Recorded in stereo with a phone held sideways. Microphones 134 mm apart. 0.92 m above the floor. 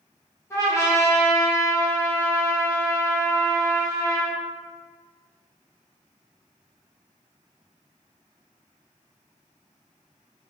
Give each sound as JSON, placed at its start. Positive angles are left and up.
{"t": 0.5, "sound": "a trumpet", "side_deg": 20, "distance_m": 0.9}